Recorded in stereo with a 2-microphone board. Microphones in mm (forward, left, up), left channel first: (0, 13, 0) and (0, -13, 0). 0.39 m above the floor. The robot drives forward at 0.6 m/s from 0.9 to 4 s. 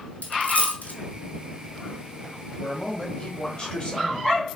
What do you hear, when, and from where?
0.2 s a dropped coin: 75° left (ahead or behind), 1.1 m
2.6 s a man speaking: 30° left (ahead or behind), 1.9 m; by 4.4 s 40° left (ahead or behind), 1.5 m